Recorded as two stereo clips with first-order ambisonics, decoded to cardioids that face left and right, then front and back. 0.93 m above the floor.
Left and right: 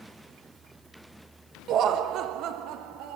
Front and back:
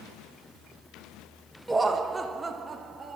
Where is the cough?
I don't hear a cough.